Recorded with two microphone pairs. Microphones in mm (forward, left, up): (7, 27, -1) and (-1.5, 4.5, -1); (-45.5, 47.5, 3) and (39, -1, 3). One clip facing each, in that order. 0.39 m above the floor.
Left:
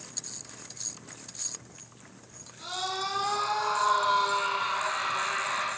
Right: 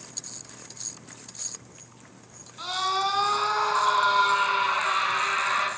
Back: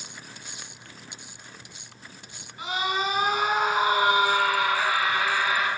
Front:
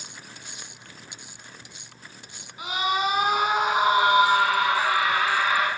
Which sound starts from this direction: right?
A scream, at 2.6 s.